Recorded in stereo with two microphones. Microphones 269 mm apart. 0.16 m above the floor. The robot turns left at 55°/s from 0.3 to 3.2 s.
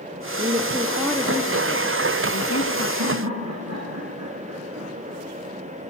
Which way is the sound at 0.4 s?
150° right.